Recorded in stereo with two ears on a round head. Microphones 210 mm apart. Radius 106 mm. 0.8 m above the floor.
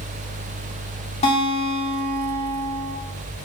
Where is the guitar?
30° left (ahead or behind), 2.5 m.